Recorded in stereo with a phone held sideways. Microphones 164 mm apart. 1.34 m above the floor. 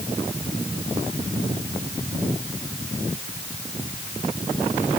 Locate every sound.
Only background noise.